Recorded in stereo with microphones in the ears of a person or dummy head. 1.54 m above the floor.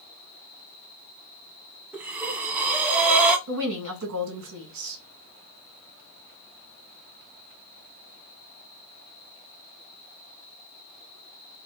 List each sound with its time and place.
1.9 s breathing: 10° right (ahead or behind), 0.9 m
3.5 s a woman speaking: 55° right (ahead or behind), 2 m